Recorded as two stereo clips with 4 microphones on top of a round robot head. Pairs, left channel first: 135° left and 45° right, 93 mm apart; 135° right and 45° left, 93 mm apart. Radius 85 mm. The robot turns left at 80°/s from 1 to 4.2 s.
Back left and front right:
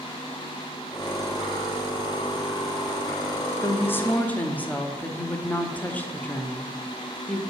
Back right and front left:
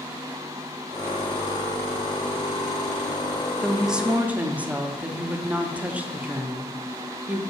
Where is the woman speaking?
140° left, 0.8 m; by 7.4 s 90° left, 0.8 m.